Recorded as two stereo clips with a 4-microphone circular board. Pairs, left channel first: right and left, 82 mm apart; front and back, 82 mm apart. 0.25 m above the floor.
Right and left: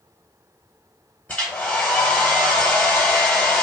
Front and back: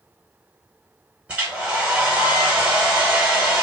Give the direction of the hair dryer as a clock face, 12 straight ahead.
4 o'clock.